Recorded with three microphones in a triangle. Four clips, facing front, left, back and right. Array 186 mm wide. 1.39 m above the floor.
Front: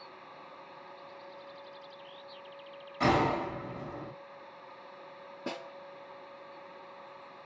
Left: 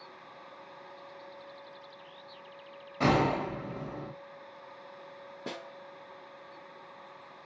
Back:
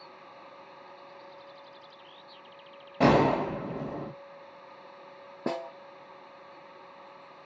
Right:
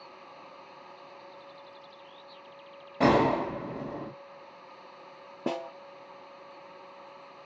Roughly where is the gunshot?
Behind.